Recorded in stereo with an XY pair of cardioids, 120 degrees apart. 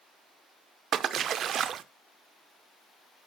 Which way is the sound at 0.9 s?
55° right.